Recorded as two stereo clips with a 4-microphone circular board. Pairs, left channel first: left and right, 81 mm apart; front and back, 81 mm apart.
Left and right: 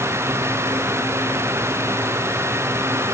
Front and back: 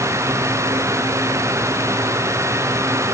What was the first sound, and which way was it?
Only background noise.